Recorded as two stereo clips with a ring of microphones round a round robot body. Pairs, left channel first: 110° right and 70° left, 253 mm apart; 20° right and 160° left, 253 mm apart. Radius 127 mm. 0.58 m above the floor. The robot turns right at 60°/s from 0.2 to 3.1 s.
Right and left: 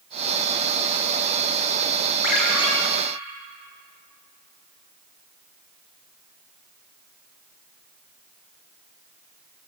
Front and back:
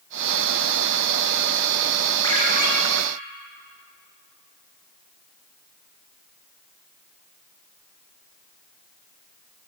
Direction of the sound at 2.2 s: 100° right.